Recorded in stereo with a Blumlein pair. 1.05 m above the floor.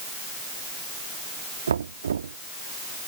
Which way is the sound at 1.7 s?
70° right.